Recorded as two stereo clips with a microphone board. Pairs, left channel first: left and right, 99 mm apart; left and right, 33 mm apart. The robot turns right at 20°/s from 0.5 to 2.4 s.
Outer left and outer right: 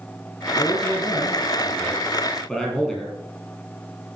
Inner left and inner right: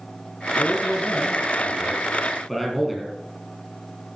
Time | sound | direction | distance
0.6 | a man speaking | 135° left | 5 m